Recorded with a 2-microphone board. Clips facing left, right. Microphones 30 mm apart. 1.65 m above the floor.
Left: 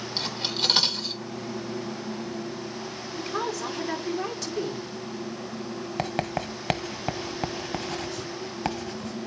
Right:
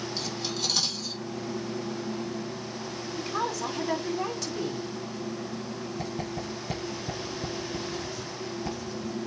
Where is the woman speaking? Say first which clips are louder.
Left 1 dB; 5° left (ahead or behind), 4.5 m.